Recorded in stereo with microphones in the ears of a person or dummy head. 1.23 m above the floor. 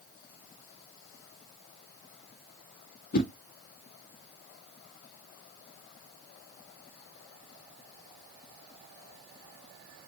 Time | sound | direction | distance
3.1 | a whoosh | 55° left (ahead or behind) | 0.6 m